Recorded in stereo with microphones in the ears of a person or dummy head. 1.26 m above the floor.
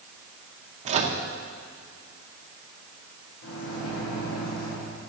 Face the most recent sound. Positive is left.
turn(degrees=80)